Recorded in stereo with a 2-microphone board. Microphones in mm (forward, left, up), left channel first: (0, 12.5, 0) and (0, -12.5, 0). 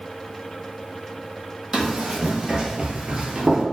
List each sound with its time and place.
1.7 s running footsteps: 20° right (ahead or behind), 1.4 m; by 3.6 s 40° right (ahead or behind), 0.8 m